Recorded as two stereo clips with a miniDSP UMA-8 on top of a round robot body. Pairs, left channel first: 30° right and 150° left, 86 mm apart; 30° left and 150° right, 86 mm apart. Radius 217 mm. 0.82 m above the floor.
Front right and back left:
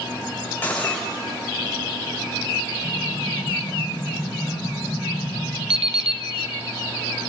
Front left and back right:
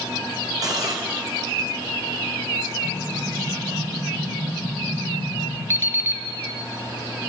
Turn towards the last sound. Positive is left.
turn(degrees=145)